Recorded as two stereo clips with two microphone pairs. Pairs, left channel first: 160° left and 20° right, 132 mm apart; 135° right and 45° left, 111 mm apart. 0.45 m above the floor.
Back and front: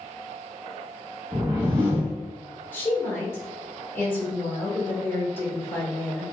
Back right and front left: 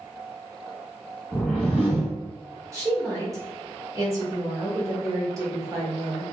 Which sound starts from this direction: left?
A woman speaking, at 2.7 s.